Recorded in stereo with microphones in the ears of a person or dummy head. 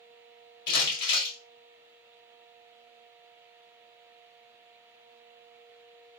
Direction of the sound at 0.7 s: 60° left (ahead or behind).